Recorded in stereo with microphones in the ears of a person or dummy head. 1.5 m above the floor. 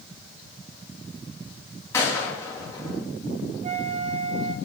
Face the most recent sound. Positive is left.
turn(degrees=-40)  # may be behind; listen again after turning